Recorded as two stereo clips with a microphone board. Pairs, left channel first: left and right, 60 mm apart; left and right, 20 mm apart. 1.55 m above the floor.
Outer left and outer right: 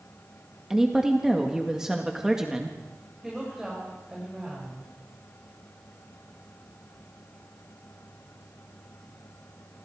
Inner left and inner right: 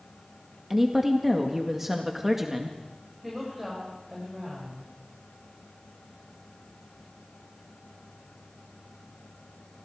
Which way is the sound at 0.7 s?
10° right (ahead or behind).